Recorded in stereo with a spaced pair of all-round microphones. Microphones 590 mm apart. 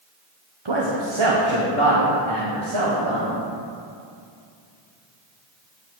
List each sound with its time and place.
0.7 s a man speaking: 45° right (ahead or behind), 0.9 m; by 3.4 s 50° right (ahead or behind), 2.5 m